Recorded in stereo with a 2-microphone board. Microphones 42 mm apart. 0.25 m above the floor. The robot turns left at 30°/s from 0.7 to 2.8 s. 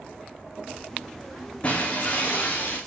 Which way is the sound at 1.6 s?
145° left.